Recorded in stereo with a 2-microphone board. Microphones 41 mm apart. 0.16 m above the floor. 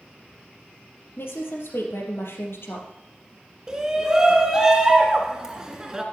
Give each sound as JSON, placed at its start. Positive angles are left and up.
{"t": 1.2, "sound": "a woman speaking", "side_deg": 75, "distance_m": 4.0}
{"t": 3.7, "sound": "a shout", "side_deg": -15, "distance_m": 2.5}